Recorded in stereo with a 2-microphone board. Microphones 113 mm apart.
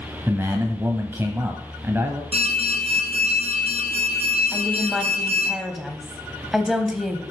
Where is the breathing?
I don't hear breathing.